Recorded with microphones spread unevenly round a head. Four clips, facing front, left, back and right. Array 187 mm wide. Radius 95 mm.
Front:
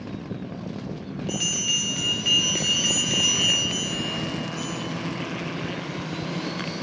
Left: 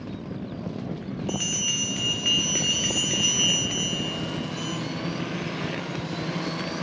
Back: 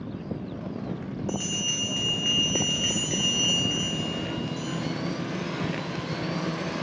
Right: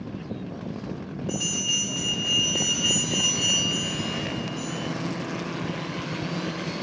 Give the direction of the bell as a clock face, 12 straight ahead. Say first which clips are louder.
Right 2 dB, even; 10 o'clock.